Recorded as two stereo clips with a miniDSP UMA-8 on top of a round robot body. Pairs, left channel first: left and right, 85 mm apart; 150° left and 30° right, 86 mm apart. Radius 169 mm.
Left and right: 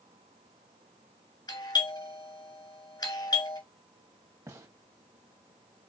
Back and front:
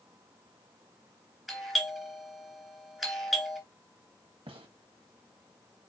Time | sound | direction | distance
1.5 | a doorbell | 60° left | 2.5 m
4.5 | a gunshot | 35° right | 1.4 m